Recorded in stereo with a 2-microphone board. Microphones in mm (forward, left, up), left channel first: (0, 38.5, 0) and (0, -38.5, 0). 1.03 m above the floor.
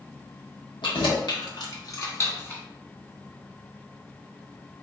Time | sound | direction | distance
0.8 | keys jangling | 85° left | 1.3 m